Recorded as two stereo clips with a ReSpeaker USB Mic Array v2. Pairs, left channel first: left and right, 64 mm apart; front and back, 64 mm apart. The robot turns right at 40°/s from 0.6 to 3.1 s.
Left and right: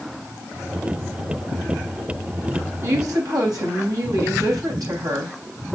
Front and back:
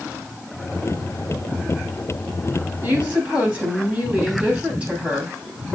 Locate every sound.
2.8 s a woman speaking: 120° right, 3.5 m; by 5.4 s 110° right, 3.5 m